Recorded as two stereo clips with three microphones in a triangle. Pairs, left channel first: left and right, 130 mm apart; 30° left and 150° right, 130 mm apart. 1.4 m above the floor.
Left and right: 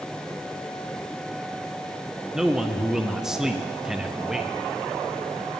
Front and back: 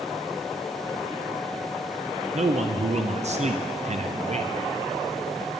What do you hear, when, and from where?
2.3 s a man speaking: 175° right, 0.6 m